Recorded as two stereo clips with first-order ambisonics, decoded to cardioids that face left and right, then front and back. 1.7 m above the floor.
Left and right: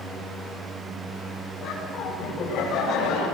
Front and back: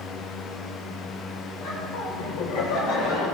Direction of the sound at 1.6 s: 30° left.